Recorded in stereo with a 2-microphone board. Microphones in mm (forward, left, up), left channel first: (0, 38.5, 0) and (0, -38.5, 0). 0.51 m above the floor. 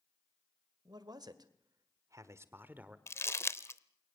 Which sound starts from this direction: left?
Crumpling, at 3.1 s.